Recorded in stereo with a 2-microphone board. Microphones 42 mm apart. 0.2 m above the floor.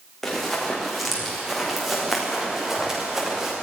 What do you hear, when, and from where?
0.2 s running footsteps: 10° left (ahead or behind), 7.5 m; by 3.5 s 10° right (ahead or behind), 7 m